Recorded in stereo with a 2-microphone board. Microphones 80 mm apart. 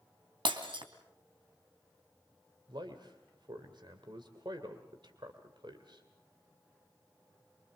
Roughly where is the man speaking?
Right.